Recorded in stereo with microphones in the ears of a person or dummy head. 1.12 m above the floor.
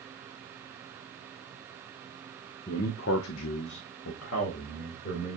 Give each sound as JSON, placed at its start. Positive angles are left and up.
{"t": 2.7, "sound": "a man speaking", "side_deg": 35, "distance_m": 0.6}